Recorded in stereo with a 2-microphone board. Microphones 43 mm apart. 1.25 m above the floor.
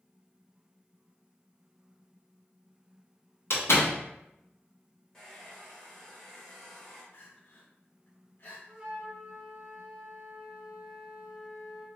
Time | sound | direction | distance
3.5 | a door slam | 65° left (ahead or behind) | 0.8 m
5.1 | a hair dryer | 15° left (ahead or behind) | 1.4 m
7.1 | crying | 55° left (ahead or behind) | 0.8 m
8.7 | a flute | 20° right (ahead or behind) | 1.0 m